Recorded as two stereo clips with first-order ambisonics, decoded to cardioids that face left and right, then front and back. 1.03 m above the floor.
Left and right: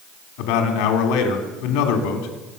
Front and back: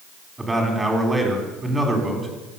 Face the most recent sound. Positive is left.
turn(degrees=95)